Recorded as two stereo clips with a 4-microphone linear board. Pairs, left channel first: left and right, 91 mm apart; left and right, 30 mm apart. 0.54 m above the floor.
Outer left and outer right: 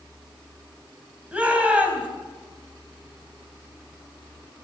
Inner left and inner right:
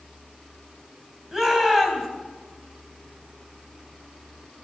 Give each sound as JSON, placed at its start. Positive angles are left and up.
{"t": 1.3, "sound": "a shout", "side_deg": -15, "distance_m": 3.5}